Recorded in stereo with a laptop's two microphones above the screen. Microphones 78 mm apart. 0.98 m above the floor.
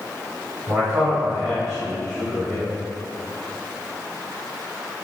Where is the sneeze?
No sneeze in this recording.